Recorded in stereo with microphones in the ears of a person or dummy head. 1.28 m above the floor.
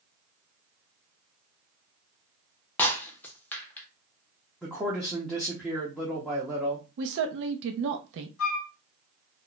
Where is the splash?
No splash in this recording.